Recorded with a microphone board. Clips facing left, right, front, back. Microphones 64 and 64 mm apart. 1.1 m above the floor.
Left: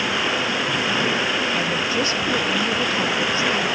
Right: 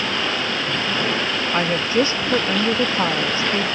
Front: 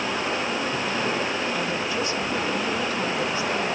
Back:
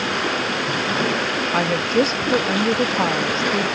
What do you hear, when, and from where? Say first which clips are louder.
0.0 s running water: left 1 dB, back 4 dB; 170° left, 5 m
1.5 s a woman speaking: right 3 dB, back 7 dB; 145° right, 1.1 m